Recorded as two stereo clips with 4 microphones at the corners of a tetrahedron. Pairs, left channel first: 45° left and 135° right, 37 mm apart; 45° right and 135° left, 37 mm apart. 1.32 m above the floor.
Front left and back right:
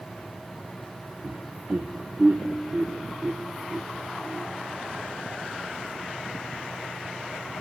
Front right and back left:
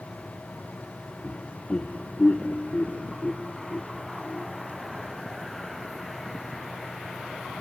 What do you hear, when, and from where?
1.2 s laughter: 95° right, 0.9 m